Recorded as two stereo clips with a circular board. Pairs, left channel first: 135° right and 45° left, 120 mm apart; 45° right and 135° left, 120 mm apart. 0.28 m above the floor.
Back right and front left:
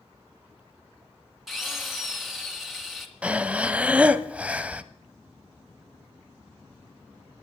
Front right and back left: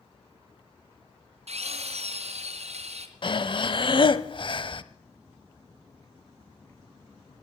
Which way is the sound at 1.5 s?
135° left.